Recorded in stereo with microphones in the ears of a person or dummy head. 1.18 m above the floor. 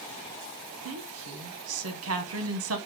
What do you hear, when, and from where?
0.8 s a woman speaking: 65° right (ahead or behind), 0.7 m